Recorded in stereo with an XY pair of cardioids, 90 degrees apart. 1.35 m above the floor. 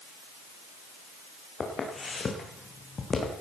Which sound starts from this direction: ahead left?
Footsteps, at 1.6 s.